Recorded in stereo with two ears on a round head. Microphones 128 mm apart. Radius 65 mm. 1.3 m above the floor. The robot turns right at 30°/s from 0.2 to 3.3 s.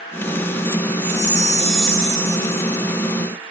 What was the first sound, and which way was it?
A chime, 150° left.